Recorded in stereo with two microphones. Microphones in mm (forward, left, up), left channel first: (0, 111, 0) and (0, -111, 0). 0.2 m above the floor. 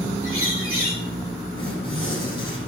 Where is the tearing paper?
75° right (ahead or behind), 8 m.